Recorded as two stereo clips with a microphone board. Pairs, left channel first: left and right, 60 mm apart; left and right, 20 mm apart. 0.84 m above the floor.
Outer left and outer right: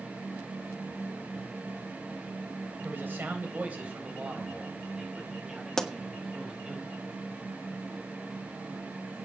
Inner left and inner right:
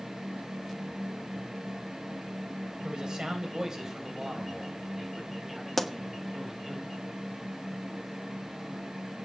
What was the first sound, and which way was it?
A man speaking, 30° right (ahead or behind).